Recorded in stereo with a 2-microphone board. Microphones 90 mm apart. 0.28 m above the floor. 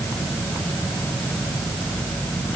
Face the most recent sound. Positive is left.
No sound to turn to.